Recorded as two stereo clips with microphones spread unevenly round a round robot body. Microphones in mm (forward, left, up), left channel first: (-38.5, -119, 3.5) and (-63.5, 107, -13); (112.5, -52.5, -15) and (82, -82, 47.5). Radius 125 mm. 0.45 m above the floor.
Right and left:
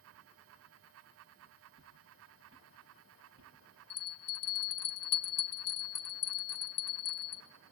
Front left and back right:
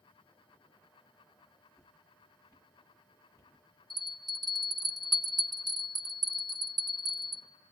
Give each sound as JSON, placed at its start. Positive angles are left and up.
{"t": 1.7, "sound": "footsteps", "azimuth_deg": 135, "distance_m": 3.0}
{"t": 3.9, "sound": "a bell", "azimuth_deg": -70, "distance_m": 1.1}